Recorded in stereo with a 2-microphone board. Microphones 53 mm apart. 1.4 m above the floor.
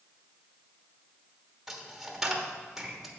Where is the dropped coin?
5° right (ahead or behind), 1.2 m.